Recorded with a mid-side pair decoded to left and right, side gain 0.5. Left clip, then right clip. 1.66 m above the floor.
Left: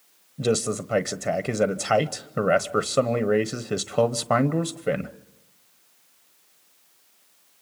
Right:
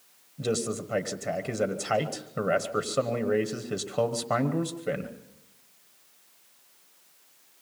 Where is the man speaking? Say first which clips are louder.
Left 5 dB; 40° left, 1.0 m.